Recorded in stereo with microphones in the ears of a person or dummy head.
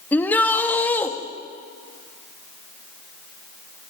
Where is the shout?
20° left (ahead or behind), 1.8 m.